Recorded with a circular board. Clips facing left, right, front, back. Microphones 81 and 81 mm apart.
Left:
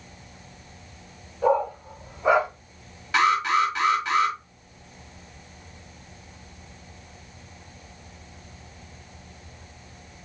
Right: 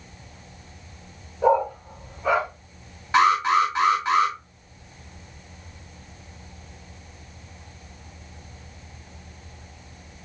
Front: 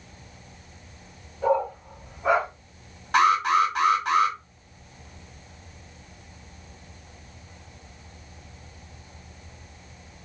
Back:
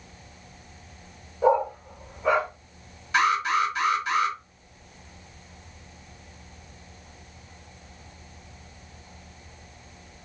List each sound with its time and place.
1.4 s a dog barking: 150° right, 0.9 m; by 2.5 s 50° left, 1.0 m
3.1 s an alarm: 25° right, 1.8 m